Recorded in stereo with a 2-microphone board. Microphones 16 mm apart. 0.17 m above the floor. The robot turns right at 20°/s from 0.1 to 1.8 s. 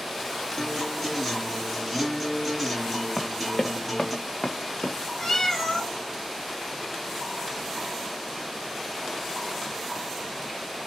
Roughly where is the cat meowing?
Left.